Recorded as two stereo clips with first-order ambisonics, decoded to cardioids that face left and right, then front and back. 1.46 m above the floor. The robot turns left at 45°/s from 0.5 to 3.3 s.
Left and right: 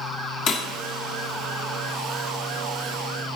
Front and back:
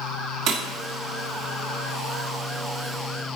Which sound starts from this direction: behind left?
Breaking glass, at 0.5 s.